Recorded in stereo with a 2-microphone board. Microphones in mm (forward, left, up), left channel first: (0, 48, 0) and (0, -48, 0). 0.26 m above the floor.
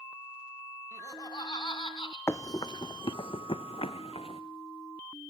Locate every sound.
0.9 s laughter: 35° left (ahead or behind), 2.5 m; by 2.2 s 60° left (ahead or behind), 3.5 m
2.3 s running footsteps: 30° left (ahead or behind), 0.6 m; by 4.4 s 80° left, 1.4 m